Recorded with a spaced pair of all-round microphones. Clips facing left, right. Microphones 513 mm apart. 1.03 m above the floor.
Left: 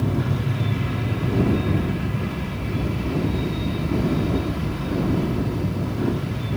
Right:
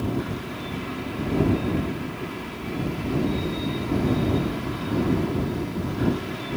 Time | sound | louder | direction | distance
0.0 | an aircraft | left 3 dB | 75° left (ahead or behind) | ?